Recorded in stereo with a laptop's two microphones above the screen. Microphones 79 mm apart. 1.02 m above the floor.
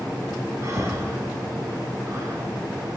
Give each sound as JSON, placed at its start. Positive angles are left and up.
{"t": 0.6, "sound": "breathing", "side_deg": -40, "distance_m": 2.0}